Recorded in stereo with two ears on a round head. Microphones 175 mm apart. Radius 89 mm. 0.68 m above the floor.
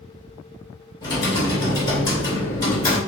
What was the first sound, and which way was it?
Typing on a keyboard, 25° left (ahead or behind).